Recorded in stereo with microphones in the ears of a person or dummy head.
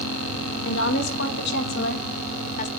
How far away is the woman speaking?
About 2 m.